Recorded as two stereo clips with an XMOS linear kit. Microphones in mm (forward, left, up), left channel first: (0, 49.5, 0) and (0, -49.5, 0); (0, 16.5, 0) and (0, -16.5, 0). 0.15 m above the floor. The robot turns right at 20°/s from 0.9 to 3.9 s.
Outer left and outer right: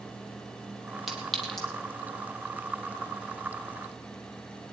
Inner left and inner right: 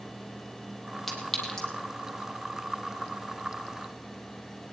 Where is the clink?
5° right (ahead or behind), 3 m; by 1.7 s 10° left (ahead or behind), 3 m.